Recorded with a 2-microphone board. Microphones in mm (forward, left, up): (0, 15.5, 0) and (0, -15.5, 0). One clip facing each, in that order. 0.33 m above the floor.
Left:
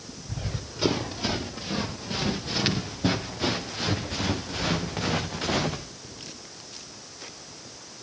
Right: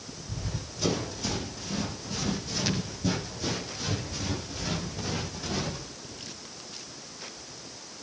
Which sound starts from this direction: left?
Running footsteps, at 0.3 s.